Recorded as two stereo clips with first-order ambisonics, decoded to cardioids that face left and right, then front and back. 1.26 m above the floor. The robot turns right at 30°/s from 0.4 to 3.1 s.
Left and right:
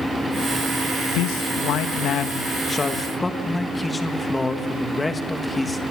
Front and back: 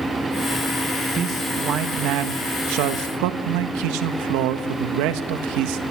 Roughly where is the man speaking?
Behind left.